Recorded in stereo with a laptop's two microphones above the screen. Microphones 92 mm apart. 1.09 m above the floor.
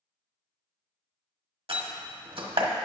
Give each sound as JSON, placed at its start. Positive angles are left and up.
{"t": 1.7, "sound": "a door slam", "side_deg": -80, "distance_m": 1.3}